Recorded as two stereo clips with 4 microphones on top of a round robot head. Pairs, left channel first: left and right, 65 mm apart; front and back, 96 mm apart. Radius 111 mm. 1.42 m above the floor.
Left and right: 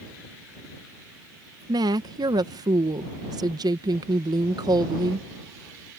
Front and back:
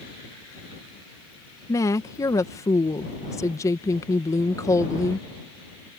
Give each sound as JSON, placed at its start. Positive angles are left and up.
{"t": 1.7, "sound": "a woman speaking", "azimuth_deg": -60}